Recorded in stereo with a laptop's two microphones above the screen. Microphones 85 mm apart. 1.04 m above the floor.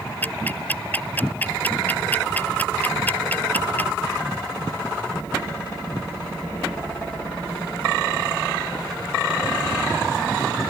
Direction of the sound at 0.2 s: 20° left (ahead or behind).